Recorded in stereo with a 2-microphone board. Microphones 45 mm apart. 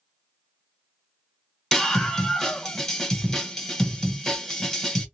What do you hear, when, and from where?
1.7 s a scream: 5° left (ahead or behind), 1.6 m